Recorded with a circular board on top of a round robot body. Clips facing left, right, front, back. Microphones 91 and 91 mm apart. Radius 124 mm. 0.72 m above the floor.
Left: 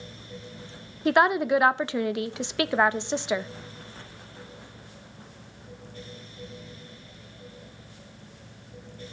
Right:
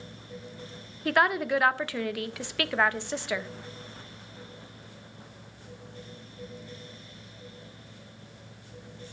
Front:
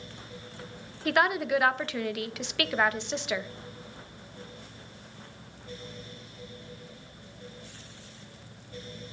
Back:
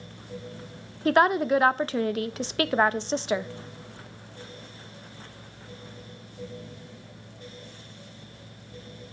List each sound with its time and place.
1.1 s a woman speaking: 145° left, 0.7 m